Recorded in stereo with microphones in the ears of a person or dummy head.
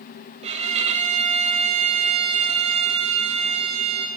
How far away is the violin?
About 0.6 m.